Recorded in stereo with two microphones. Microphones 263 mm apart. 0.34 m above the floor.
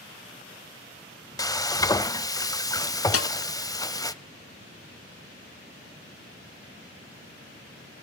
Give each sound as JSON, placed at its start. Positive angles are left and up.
{"t": 1.4, "sound": "frying", "side_deg": 15, "distance_m": 0.6}
{"t": 3.1, "sound": "a snare drum", "side_deg": 60, "distance_m": 0.5}